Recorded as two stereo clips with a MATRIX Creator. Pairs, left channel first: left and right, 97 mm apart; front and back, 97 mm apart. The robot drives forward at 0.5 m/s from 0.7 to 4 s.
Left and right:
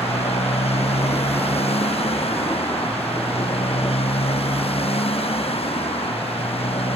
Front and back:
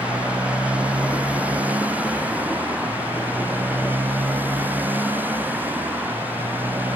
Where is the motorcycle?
105° left.